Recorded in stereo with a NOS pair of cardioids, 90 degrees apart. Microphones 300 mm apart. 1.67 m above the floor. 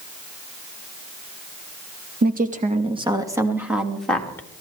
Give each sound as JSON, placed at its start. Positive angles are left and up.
{"t": 2.2, "sound": "a woman speaking", "azimuth_deg": -30, "distance_m": 2.5}